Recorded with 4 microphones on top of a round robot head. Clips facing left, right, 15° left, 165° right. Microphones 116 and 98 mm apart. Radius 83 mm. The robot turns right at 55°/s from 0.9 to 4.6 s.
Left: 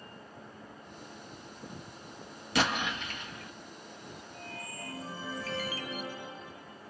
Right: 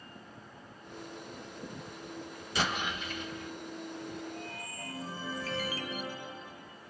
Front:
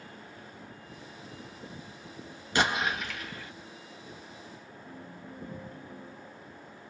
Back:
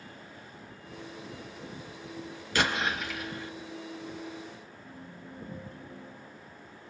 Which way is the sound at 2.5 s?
85° left.